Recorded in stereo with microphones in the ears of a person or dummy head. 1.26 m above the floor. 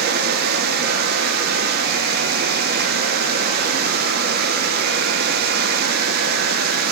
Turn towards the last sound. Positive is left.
turn(degrees=-55)  # may be behind; listen again after turning